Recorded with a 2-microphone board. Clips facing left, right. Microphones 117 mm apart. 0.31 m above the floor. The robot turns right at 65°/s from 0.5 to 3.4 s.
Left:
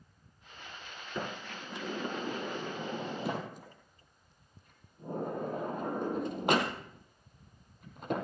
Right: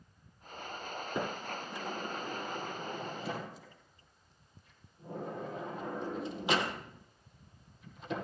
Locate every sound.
1.1 s a sliding door: 20° right (ahead or behind), 2.0 m; by 8.2 s 55° left (ahead or behind), 2.0 m